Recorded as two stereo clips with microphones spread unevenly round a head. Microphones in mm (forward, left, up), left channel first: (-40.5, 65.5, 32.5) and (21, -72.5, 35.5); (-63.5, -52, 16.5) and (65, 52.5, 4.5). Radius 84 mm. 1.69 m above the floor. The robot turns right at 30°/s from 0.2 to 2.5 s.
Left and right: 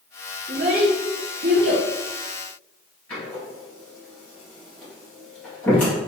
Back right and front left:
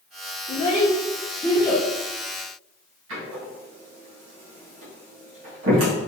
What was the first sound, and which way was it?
A child speaking, 105° right.